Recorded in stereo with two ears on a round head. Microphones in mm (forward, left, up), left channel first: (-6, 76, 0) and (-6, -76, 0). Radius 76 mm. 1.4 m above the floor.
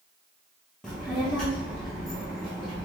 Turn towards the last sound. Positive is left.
turn(degrees=0)  # may be behind; listen again after turning